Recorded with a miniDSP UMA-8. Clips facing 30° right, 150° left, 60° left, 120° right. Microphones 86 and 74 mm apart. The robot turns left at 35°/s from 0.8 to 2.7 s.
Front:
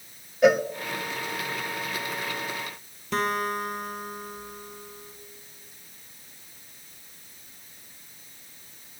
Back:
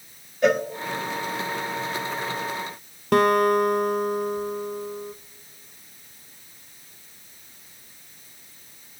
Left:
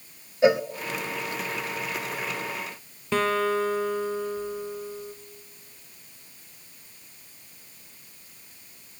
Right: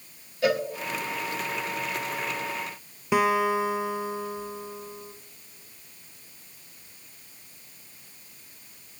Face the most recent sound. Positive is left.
turn(degrees=165)